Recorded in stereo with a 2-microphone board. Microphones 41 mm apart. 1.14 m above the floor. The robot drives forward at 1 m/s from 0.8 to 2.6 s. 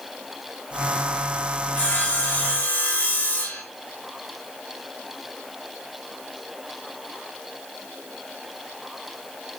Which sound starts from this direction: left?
Sawing, at 1.8 s.